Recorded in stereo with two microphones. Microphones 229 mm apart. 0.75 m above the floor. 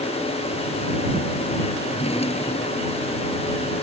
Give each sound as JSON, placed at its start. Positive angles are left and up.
{"t": 1.9, "sound": "a drawer", "side_deg": 25}